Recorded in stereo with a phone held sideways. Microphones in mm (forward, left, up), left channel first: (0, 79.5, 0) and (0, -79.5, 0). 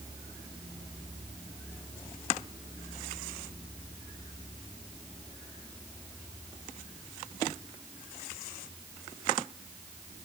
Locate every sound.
Only background noise.